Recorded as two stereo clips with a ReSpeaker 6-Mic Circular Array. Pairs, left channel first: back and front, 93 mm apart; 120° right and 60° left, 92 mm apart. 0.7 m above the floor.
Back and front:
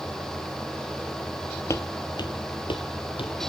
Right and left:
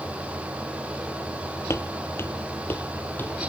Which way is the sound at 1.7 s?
155° right.